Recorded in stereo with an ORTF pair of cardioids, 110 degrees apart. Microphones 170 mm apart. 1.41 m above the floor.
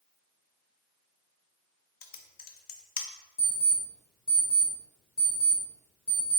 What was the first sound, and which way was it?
Typing on a keyboard, 60° left.